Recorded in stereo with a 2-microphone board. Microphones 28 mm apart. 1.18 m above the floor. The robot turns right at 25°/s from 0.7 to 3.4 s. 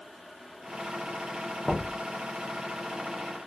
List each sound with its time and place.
1.6 s knocking: 35° left (ahead or behind), 0.6 m; by 2.0 s 25° left (ahead or behind), 0.6 m